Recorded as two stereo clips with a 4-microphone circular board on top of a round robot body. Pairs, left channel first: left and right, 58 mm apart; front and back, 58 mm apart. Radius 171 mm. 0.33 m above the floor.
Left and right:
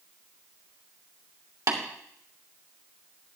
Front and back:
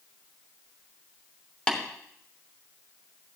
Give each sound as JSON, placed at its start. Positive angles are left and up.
{"t": 1.7, "sound": "tapping", "azimuth_deg": -70, "distance_m": 2.5}